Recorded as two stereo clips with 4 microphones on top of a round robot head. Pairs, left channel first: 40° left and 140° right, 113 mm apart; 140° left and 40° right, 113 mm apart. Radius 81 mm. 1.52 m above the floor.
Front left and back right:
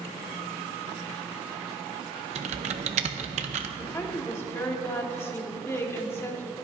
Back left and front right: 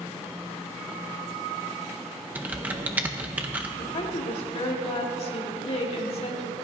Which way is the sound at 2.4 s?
115° right.